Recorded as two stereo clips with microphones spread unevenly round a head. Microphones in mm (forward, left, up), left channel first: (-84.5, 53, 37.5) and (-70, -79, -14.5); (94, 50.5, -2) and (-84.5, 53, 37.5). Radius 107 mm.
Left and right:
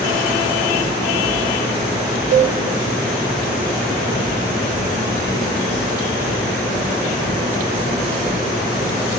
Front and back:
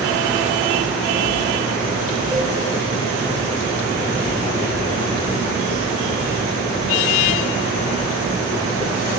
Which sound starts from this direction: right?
A cowbell, at 2.3 s.